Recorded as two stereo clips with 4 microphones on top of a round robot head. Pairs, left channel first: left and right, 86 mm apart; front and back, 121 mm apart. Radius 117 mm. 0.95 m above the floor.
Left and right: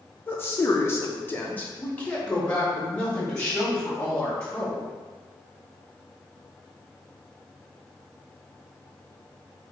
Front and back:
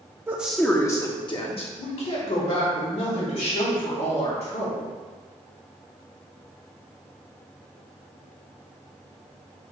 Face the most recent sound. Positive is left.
turn(degrees=10)